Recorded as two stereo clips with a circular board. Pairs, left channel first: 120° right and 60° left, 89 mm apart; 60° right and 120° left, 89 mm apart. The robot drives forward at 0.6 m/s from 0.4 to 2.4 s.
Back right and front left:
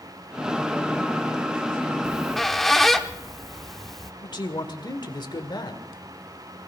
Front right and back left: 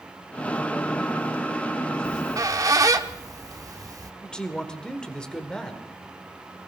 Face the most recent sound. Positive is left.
turn(degrees=-140)